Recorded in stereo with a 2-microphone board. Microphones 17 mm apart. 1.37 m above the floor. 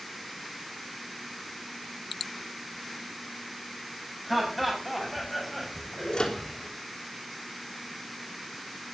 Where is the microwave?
50° left (ahead or behind), 3.5 m.